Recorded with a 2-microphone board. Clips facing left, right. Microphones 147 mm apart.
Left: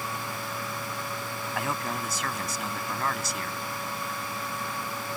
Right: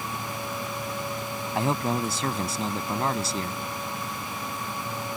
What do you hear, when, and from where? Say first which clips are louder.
1.6 s a man speaking: right 7 dB; 30° right (ahead or behind)